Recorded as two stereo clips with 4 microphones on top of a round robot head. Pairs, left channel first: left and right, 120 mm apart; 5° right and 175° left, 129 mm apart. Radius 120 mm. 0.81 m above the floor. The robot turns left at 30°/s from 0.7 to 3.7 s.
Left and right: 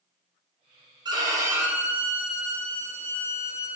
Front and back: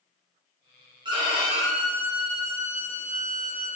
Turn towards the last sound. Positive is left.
turn(degrees=145)